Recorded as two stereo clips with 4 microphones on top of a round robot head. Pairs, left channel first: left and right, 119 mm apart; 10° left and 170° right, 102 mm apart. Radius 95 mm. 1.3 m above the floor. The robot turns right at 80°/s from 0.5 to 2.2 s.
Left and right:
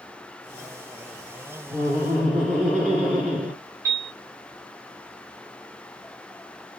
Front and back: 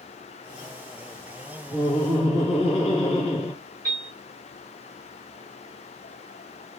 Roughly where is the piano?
Ahead right.